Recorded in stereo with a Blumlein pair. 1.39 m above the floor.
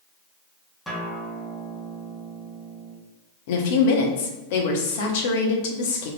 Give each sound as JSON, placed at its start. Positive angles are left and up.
{"t": 0.9, "sound": "a guitar", "azimuth_deg": 5, "distance_m": 1.0}
{"t": 3.5, "sound": "a woman speaking", "azimuth_deg": 50, "distance_m": 0.8}